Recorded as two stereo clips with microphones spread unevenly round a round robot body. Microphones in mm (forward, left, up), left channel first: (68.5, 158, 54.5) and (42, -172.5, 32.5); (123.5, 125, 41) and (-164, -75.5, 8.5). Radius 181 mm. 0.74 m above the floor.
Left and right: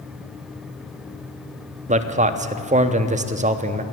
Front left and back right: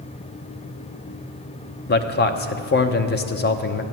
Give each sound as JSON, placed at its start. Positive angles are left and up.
{"t": 1.9, "sound": "a man speaking", "azimuth_deg": -30, "distance_m": 0.8}